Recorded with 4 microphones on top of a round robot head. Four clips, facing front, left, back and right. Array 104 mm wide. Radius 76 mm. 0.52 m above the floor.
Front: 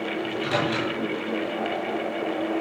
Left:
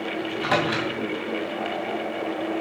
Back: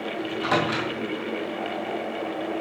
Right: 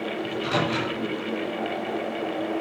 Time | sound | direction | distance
0.2 | a microwave | 115° left | 2.5 m